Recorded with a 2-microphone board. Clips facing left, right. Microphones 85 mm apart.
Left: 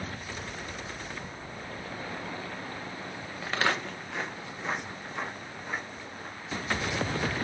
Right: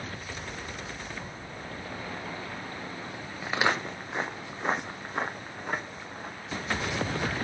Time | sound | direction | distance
3.4 | footsteps | 10° right (ahead or behind) | 1.0 m